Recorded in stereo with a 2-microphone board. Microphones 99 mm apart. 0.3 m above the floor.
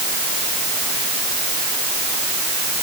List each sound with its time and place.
Only background noise.